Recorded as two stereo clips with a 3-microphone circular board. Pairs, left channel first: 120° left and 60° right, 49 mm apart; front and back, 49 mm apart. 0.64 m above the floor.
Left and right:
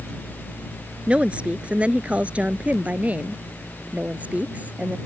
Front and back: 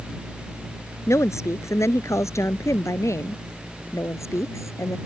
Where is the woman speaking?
5° left; by 5.0 s 5° right.